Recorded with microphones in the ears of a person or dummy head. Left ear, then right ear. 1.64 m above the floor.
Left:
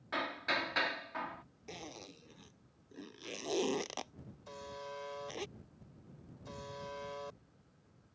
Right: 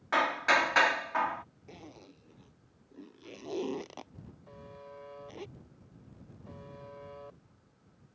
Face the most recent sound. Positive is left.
turn(degrees=85)